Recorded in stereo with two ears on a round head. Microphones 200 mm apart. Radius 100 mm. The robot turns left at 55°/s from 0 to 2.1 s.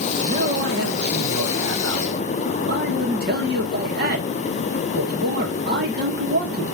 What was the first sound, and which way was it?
A man speaking, 25° right.